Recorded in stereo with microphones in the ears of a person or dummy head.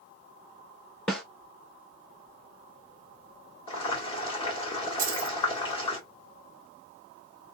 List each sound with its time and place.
1.1 s a snare drum: centre (ahead or behind), 0.7 m
3.7 s boiling: 30° left (ahead or behind), 1.8 m
5.0 s keys jangling: 50° right (ahead or behind), 1.3 m